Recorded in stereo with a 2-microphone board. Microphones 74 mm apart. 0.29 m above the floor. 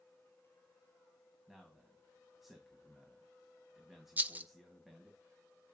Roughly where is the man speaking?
Centre.